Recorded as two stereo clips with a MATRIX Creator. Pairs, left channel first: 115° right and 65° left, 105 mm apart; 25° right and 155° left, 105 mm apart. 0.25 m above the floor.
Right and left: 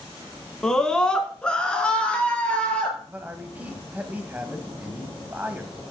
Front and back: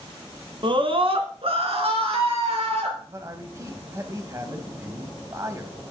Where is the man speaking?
130° left, 1.3 m.